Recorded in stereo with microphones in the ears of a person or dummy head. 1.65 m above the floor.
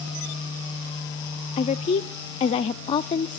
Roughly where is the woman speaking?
Left.